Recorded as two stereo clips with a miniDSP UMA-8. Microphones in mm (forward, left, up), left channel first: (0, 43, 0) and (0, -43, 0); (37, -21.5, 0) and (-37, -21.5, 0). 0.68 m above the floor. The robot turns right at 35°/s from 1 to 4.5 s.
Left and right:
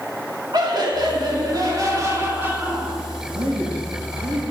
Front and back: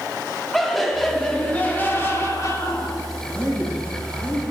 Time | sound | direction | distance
0.5 | laughter | 85° right | 1.8 m
3.4 | a man speaking | 70° right | 3.5 m